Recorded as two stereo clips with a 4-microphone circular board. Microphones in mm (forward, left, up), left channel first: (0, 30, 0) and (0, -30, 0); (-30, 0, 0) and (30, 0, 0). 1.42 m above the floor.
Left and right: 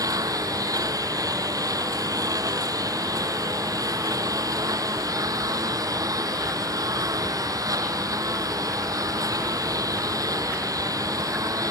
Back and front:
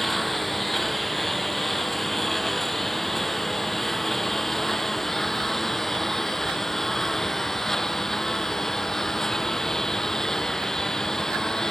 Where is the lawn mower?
95° right; by 11.7 s 100° right.